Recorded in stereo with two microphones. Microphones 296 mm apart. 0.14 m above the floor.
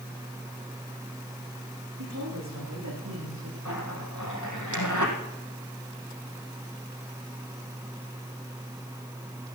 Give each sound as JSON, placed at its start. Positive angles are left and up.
{"t": 2.0, "sound": "a woman speaking", "side_deg": -65, "distance_m": 9.0}
{"t": 3.6, "sound": "a zipper", "side_deg": 75, "distance_m": 3.5}